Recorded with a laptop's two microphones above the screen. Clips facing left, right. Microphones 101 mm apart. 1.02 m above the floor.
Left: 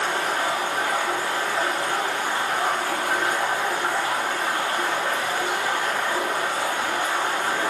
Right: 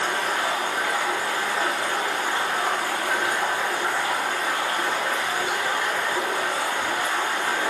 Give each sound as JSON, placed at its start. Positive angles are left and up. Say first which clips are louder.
{"t": 0.0, "sound": "running water", "louder": "left 1 dB", "side_deg": 40, "distance_m": 1.0}